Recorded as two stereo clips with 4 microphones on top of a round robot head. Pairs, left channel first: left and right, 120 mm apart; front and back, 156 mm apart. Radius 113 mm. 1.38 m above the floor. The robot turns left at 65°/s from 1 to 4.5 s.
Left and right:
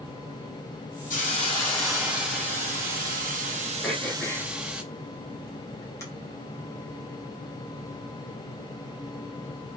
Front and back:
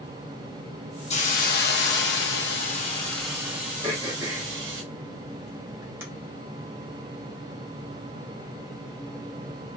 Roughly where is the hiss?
Ahead left.